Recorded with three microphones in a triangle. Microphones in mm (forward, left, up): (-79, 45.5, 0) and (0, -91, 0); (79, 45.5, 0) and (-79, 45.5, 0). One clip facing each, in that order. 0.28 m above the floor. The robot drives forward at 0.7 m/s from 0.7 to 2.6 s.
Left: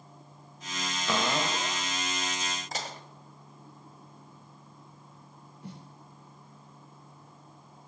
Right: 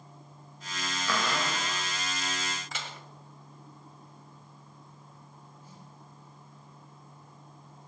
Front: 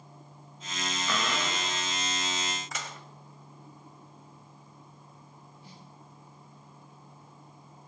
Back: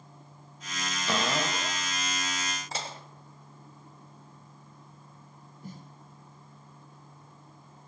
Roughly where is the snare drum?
Behind left.